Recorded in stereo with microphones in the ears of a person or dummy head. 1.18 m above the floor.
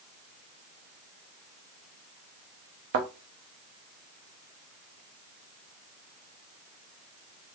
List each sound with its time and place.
2.9 s a thud: 35° right (ahead or behind), 0.6 m